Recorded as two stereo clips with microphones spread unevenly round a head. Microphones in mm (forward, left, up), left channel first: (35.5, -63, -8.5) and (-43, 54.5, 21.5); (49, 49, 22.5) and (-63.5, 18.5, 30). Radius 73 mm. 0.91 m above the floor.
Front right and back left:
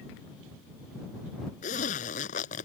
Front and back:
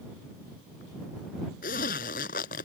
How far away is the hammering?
I don't hear hammering.